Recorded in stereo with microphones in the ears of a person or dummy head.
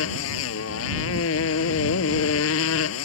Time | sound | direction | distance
0.0 | a motorcycle | 85° left | ?